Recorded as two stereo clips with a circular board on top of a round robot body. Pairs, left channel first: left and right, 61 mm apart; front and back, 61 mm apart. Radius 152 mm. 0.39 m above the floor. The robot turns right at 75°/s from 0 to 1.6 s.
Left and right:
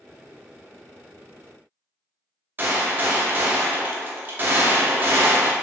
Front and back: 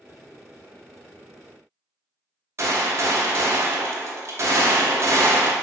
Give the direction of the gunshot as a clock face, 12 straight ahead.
5 o'clock.